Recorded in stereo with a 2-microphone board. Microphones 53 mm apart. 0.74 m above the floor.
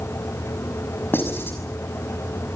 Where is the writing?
40° left (ahead or behind), 6 m.